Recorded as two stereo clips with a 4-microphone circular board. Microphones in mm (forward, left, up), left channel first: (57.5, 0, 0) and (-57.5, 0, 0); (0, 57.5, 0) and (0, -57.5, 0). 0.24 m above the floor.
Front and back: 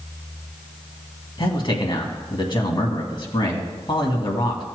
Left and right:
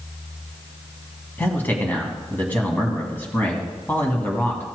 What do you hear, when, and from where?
1.4 s a man speaking: 20° left, 2.0 m